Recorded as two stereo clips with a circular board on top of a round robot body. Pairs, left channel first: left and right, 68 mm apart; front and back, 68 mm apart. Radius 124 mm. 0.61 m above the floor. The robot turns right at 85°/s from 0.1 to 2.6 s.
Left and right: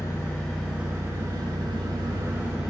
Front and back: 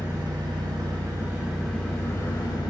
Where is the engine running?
140° left, 1.0 m; by 2.7 s 10° right, 1.0 m.